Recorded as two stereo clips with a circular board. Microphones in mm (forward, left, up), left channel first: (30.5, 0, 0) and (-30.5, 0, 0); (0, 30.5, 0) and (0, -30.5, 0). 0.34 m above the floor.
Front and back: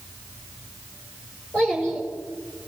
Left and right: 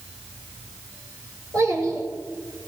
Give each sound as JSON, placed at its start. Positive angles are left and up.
{"t": 1.5, "sound": "a child speaking", "azimuth_deg": -70, "distance_m": 5.5}